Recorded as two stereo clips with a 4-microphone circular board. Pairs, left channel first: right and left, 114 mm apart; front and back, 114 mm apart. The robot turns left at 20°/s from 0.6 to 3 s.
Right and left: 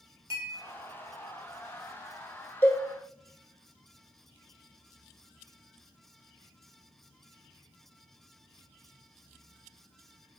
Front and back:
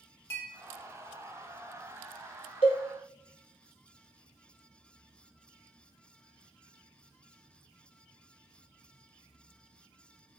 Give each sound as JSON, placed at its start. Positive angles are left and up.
{"t": 0.3, "sound": "a clink", "azimuth_deg": 45, "distance_m": 1.1}
{"t": 2.6, "sound": "a cowbell", "azimuth_deg": -20, "distance_m": 0.6}